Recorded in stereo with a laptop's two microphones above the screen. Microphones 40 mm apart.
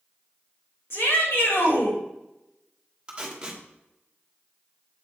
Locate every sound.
0.9 s a shout: 75° left (ahead or behind), 3.5 m
3.1 s tape being pulled: 20° right (ahead or behind), 1.3 m